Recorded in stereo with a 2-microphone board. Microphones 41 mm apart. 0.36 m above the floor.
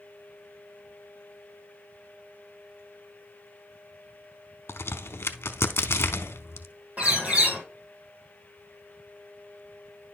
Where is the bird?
35° right (ahead or behind), 2.5 m.